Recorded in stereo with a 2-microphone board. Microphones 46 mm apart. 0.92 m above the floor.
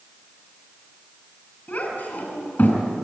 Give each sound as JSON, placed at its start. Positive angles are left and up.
{"t": 1.7, "sound": "a child speaking", "side_deg": 40, "distance_m": 5.0}